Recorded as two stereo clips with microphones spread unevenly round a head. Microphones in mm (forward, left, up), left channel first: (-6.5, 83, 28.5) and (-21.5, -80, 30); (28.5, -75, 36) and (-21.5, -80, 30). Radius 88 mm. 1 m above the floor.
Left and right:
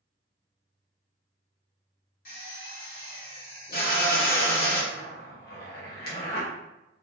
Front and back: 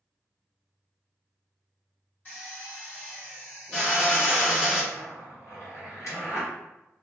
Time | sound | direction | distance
2.2 | a drill | 65° left | 1.5 m
4.9 | a zipper | 50° left | 1.0 m